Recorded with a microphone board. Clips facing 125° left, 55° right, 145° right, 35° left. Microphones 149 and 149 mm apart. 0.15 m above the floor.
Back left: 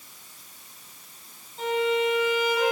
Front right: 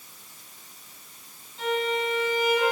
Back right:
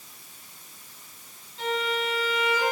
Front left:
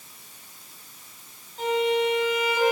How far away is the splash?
I don't hear a splash.